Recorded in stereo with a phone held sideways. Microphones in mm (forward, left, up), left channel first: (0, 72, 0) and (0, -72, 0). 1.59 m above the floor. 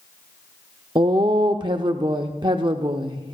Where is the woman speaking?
30° right (ahead or behind), 0.6 m.